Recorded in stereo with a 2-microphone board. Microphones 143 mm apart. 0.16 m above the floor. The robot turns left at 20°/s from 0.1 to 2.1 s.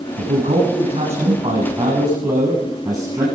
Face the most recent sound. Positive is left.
turn(degrees=-150)